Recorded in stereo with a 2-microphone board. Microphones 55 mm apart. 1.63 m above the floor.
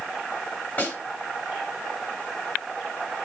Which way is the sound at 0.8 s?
35° left (ahead or behind).